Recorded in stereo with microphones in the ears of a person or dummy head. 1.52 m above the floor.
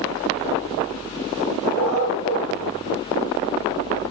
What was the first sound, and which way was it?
A dog barking, 75° right (ahead or behind).